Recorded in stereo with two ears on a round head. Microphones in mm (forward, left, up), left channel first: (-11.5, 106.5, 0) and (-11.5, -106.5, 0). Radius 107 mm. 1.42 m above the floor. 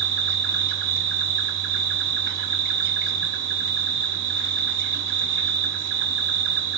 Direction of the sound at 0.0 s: 50° right (ahead or behind).